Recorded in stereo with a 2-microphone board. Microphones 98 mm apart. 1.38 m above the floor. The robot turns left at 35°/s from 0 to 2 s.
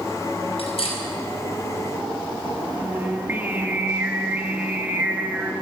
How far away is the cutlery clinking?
About 4.5 m.